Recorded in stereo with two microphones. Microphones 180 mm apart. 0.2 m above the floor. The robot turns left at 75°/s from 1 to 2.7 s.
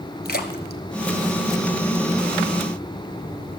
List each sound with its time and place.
0.2 s a splash: 65° left (ahead or behind), 0.8 m; by 2.0 s 40° left (ahead or behind), 0.8 m